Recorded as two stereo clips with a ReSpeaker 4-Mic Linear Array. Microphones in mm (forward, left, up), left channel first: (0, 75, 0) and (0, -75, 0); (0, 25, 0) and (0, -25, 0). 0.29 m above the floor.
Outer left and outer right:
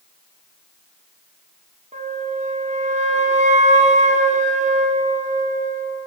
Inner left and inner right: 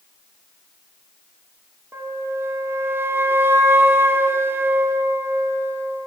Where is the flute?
50° right (ahead or behind), 0.6 m.